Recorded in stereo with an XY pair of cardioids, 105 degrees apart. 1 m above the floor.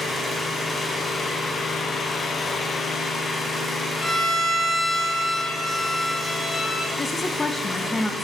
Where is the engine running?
35° left, 5.5 m.